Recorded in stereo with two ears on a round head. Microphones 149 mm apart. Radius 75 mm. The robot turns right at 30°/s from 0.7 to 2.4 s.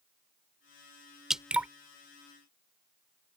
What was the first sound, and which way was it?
Dripping, 5° right (ahead or behind).